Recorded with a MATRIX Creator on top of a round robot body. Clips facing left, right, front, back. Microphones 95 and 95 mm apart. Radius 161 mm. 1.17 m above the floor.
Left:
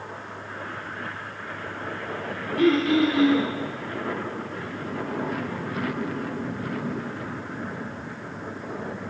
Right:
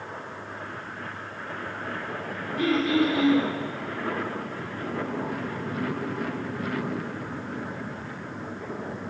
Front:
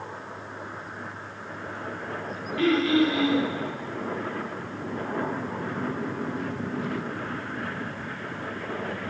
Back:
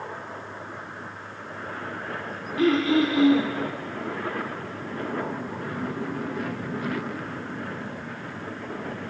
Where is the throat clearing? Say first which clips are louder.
Left 3 dB, back 1 dB; 120° left, 1.4 m.